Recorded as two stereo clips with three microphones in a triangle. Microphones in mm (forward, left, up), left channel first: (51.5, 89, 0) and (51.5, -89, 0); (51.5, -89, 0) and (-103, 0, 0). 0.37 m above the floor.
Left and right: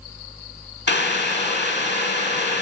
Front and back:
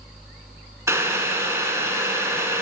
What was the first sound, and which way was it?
Boiling, 75° left.